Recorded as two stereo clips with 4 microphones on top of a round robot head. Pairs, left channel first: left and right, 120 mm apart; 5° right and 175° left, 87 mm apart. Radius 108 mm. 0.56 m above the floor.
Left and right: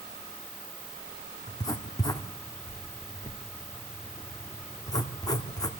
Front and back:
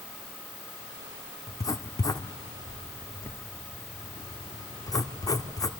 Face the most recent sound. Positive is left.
turn(degrees=35)